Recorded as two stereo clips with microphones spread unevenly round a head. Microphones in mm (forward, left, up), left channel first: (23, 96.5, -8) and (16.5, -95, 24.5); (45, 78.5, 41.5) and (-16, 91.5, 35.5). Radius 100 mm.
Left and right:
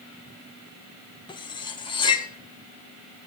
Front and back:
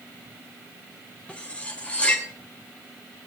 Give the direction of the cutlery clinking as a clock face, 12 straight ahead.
11 o'clock.